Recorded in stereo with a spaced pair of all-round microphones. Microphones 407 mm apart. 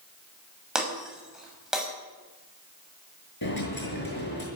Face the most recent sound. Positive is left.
turn(degrees=60)  # may be behind; listen again after turning